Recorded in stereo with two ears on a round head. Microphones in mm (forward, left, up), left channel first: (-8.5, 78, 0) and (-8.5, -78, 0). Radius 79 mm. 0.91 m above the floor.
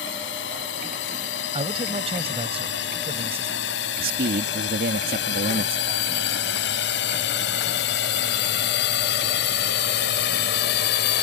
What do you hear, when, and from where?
0.0 s a drone: 80° left; by 11.2 s 70° left (ahead or behind)
1.5 s a man speaking: 35° right (ahead or behind)
4.0 s a man speaking: 60° right (ahead or behind)